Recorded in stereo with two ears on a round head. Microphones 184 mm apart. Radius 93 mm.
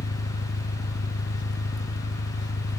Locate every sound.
0.0 s an engine running: 60° left (ahead or behind), 0.7 m